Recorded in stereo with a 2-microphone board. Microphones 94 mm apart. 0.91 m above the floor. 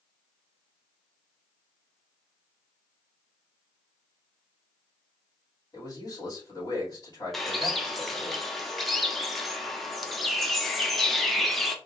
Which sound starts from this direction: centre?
A bird, at 7.3 s.